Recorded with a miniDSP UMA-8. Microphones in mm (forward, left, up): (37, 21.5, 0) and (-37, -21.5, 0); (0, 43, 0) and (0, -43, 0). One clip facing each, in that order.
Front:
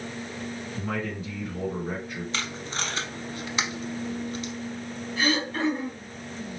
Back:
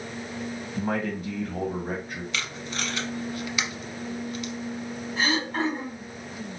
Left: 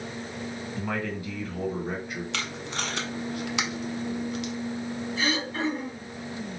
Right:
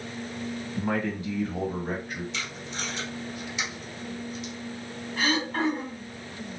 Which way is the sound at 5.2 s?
110° right.